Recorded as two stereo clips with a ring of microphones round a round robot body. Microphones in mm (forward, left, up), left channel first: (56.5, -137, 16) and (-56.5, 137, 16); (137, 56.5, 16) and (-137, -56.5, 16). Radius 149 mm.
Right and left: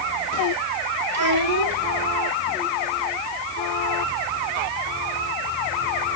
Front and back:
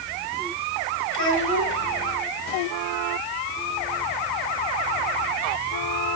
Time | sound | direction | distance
1.1 | a child speaking | 75° left | 6 m